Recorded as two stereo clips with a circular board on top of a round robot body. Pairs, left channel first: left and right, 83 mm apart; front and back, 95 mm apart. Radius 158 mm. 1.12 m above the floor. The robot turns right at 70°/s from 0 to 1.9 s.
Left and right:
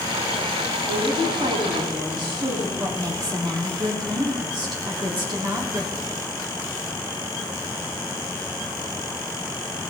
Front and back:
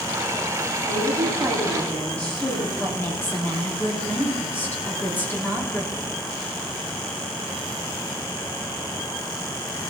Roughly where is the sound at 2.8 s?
Ahead right.